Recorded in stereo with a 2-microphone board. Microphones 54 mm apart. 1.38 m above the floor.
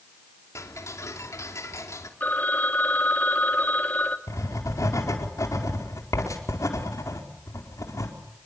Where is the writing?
80° left, 4.5 m.